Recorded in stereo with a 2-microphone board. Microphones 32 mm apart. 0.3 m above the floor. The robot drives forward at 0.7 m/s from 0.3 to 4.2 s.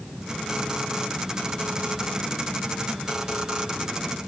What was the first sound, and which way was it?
Only background noise.